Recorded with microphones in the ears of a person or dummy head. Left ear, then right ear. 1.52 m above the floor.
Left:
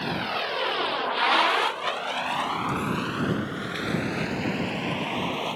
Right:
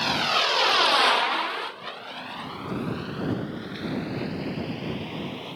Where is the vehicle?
40° right (ahead or behind); by 5.6 s 35° left (ahead or behind).